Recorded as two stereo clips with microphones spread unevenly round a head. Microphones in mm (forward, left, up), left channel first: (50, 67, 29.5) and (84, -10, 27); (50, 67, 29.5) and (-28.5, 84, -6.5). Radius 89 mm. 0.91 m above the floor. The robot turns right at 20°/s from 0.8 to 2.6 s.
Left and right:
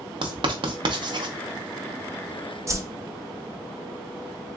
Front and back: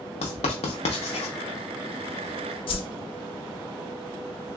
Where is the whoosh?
10° right, 0.6 m.